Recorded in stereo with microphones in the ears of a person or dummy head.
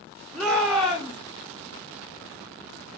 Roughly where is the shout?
Centre.